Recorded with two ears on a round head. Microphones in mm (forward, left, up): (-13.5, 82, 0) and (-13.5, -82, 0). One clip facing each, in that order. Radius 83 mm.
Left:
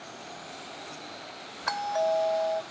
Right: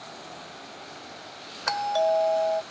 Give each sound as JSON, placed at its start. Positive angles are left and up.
{"t": 1.7, "sound": "a doorbell", "side_deg": -40}